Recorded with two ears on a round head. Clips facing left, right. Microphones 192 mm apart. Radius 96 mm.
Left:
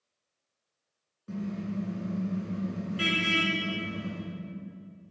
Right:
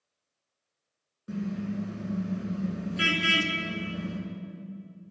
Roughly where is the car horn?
Centre.